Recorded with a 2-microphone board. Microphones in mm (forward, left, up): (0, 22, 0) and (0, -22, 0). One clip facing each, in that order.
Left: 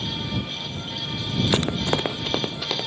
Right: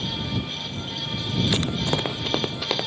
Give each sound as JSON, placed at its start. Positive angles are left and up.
{"t": 1.5, "sound": "running footsteps", "side_deg": 55}